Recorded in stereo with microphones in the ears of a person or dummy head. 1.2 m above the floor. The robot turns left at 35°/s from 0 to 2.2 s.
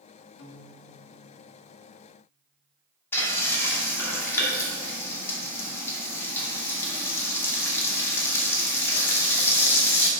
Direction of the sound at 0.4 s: 65° left (ahead or behind).